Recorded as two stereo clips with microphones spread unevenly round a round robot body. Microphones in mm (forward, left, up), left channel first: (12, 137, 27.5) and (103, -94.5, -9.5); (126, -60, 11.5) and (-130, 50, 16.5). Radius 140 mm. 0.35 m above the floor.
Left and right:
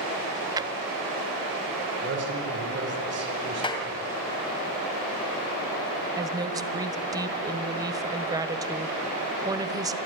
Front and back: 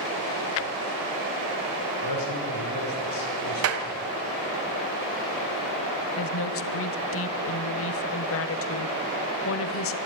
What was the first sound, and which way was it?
A drawer, 5° right.